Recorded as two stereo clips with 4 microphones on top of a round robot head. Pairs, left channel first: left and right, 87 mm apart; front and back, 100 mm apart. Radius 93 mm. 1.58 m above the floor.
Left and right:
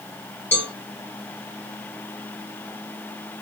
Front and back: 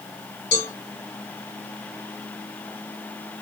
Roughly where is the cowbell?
Ahead.